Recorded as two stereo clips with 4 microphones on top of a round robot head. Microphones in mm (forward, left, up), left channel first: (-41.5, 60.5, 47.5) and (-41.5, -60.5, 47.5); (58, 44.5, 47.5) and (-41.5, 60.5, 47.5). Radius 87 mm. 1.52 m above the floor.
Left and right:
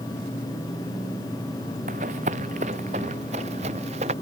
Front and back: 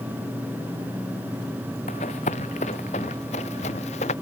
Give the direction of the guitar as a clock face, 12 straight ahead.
No guitar in this recording.